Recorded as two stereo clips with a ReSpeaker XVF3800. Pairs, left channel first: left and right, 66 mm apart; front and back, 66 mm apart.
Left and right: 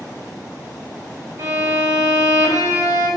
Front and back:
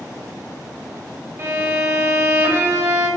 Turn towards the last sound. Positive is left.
turn(degrees=-130)